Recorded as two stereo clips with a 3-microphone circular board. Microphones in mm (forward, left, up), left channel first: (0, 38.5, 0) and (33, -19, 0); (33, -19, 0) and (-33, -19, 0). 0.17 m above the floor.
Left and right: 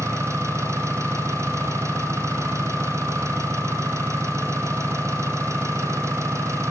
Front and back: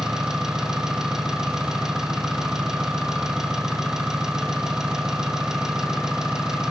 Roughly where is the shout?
No shout in this recording.